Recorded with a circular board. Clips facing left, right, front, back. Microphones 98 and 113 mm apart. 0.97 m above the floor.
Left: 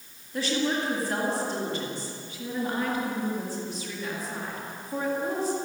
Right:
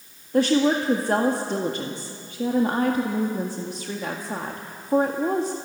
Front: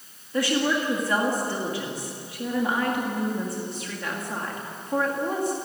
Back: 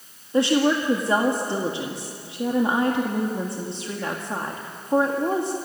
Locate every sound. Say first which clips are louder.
0.3 s a woman speaking: right 8 dB, back 5 dB; 120° right, 1.9 m